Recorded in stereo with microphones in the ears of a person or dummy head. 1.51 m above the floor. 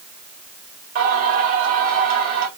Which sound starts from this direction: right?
Singing, at 0.9 s.